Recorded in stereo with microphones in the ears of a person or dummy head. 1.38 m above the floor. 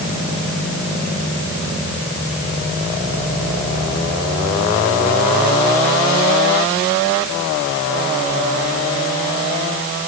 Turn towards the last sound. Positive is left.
No sound to turn to.